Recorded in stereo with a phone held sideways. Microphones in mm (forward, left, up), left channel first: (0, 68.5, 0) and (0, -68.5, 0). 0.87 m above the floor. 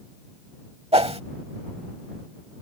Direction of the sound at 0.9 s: 50° right (ahead or behind).